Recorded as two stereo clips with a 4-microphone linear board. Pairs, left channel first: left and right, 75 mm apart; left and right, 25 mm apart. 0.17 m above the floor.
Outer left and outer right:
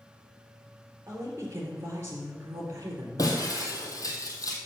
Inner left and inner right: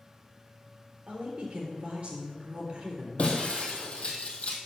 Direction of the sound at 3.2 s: 50° left (ahead or behind).